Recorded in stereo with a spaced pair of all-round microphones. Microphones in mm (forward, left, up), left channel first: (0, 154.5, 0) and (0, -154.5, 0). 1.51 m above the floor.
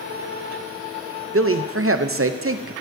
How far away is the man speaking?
About 0.5 m.